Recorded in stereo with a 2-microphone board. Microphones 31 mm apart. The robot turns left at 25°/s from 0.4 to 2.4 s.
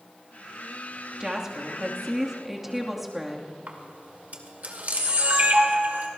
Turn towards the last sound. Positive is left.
turn(degrees=-60)  # may be behind; listen again after turning